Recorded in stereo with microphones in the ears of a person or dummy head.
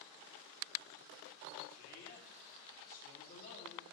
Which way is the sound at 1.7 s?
40° left (ahead or behind).